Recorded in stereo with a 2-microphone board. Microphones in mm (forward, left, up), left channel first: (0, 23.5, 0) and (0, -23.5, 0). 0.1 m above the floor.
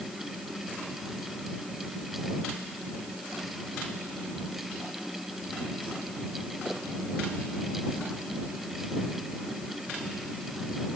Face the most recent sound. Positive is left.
No sound to turn to.